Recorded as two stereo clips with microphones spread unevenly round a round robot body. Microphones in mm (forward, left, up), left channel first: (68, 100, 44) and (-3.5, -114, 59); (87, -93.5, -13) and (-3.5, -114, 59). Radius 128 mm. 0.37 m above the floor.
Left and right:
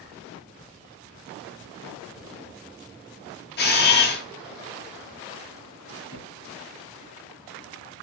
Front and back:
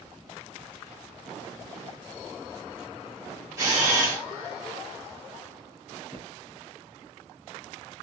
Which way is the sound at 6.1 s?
70° left.